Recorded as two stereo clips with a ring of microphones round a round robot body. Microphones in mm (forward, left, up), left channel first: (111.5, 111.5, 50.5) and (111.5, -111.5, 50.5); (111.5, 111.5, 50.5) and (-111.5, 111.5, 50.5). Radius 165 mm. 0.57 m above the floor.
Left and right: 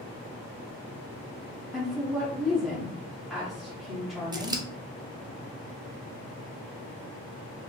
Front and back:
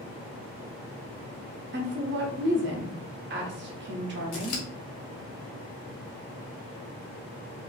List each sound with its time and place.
1.7 s a woman speaking: straight behind, 0.9 m
4.3 s scissors: 15° right, 0.6 m